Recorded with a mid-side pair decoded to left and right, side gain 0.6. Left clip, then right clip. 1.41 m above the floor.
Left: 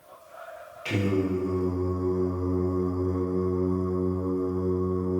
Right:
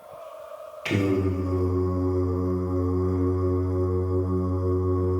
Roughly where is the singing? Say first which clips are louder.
Right 2 dB; ahead right.